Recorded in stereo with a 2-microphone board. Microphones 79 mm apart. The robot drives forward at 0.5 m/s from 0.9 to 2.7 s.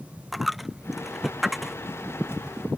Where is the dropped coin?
Centre (ahead or behind).